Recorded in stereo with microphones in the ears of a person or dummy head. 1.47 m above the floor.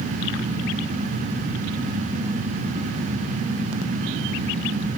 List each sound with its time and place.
Only background noise.